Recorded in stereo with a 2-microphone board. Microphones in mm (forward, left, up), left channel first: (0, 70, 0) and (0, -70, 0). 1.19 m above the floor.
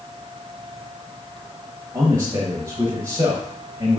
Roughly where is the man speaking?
Right.